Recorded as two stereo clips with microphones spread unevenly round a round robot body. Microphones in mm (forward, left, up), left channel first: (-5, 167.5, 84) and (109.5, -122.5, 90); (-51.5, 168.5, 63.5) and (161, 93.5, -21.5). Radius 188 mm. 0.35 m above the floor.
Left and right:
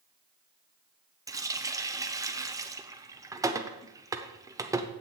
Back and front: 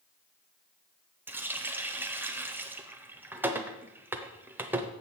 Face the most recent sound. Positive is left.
turn(degrees=5)